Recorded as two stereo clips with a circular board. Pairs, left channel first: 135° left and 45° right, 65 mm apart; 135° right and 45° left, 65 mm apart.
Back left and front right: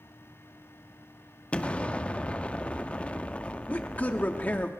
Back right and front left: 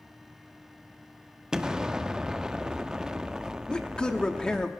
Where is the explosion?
110° left, 0.5 m.